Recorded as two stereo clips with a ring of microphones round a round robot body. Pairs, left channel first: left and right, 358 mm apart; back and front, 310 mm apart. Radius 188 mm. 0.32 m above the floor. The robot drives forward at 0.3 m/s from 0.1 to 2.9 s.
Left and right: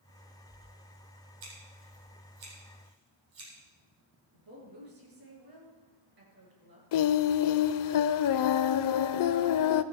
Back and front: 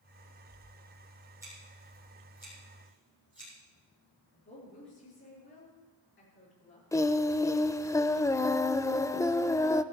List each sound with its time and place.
1.4 s scissors: 85° right, 7 m
4.3 s a woman speaking: 120° right, 6.5 m
6.9 s singing: 100° left, 0.6 m